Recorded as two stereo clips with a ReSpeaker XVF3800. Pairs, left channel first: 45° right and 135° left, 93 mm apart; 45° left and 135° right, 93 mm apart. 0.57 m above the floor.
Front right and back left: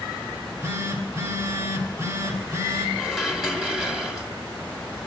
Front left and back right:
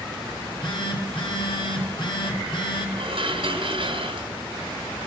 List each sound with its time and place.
0.3 s a phone buzzing: 80° left, 4.5 m
3.0 s dishes clattering: 140° right, 2.5 m